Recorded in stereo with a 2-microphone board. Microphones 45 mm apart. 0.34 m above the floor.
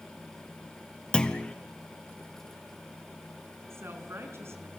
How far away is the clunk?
About 1.2 m.